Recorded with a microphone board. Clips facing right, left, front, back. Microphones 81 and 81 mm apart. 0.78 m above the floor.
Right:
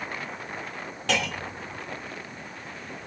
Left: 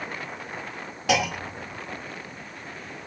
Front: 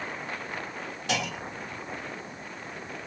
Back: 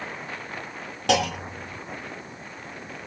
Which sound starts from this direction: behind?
A clunk, at 1.1 s.